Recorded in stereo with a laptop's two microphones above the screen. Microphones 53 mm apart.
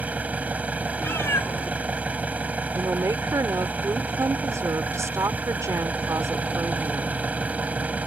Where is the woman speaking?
70° right (ahead or behind).